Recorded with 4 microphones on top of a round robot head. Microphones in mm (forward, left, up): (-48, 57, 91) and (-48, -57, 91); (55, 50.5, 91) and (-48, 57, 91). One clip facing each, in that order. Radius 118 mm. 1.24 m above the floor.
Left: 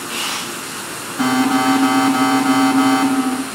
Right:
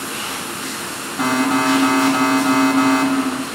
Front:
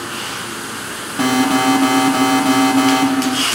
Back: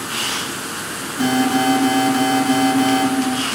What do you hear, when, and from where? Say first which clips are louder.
1.2 s an alarm: left 2 dB, front 2 dB; 5° right, 2 m